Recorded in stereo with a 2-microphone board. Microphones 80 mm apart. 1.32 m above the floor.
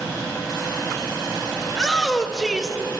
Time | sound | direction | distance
1.7 | a shout | centre (ahead or behind) | 1.5 m